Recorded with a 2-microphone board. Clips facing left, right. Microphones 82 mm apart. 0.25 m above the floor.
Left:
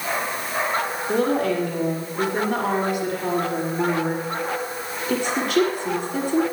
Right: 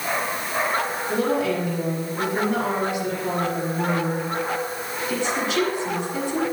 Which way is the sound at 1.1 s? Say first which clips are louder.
Left 2 dB; 55° left (ahead or behind).